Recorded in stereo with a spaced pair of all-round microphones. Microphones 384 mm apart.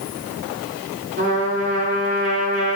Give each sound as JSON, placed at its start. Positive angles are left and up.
{"t": 1.2, "sound": "a trumpet", "side_deg": -30, "distance_m": 2.0}